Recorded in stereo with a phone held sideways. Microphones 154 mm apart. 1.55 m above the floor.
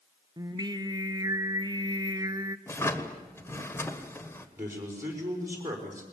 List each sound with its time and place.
0.4 s singing: 25° right (ahead or behind), 0.8 m
2.7 s a drawer: 15° left (ahead or behind), 1.5 m
4.6 s a man speaking: 20° right (ahead or behind), 5 m